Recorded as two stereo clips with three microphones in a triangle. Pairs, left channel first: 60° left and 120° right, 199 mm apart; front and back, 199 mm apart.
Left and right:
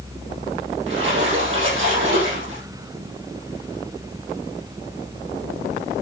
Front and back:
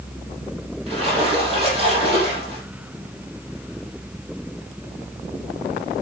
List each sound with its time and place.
0.9 s a splash: 120° right, 6.5 m